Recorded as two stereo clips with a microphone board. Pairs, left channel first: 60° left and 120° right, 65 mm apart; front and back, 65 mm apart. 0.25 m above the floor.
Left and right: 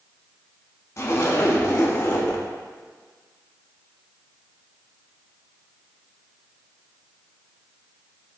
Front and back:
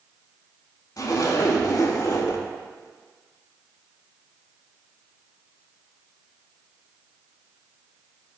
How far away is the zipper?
About 0.5 m.